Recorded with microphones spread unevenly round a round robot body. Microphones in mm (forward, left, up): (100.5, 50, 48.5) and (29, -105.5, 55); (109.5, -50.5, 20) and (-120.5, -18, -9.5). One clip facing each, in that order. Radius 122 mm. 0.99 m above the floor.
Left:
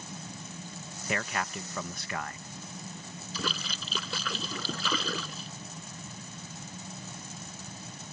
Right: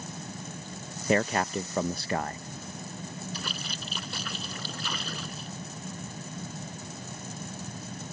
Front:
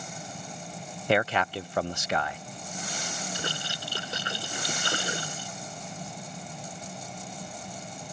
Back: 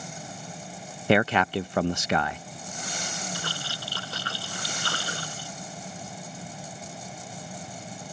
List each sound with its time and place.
1.1 s a man speaking: 175° right
3.3 s a splash: 65° left